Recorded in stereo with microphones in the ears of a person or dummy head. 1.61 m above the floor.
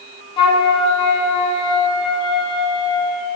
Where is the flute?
30° left (ahead or behind), 1.1 m.